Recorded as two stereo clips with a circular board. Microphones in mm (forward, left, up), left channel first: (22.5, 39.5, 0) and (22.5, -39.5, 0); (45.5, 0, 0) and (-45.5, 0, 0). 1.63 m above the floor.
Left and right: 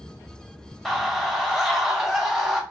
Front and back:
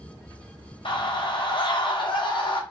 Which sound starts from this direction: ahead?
A scream, at 0.8 s.